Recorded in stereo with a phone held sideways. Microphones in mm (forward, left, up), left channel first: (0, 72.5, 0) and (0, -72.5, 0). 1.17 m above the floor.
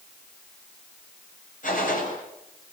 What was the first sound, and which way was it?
A gunshot, 70° left (ahead or behind).